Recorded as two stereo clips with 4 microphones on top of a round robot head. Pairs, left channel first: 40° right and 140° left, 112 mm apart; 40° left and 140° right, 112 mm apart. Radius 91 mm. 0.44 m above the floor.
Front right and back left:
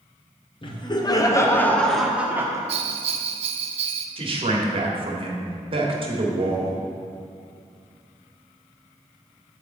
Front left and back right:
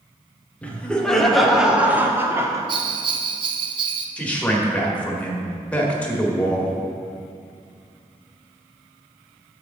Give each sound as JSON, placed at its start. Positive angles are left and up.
{"t": 0.6, "sound": "laughter", "azimuth_deg": -35, "distance_m": 1.8}
{"t": 2.7, "sound": "a bell", "azimuth_deg": 175, "distance_m": 0.6}
{"t": 4.2, "sound": "a man speaking", "azimuth_deg": 115, "distance_m": 1.8}